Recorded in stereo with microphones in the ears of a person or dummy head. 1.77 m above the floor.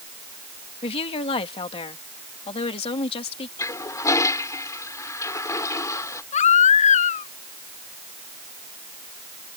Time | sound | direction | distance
0.8 | a woman speaking | 30° left (ahead or behind) | ?
3.6 | a toilet flushing | 15° left (ahead or behind) | ?
6.3 | a baby crying | 40° left (ahead or behind) | ?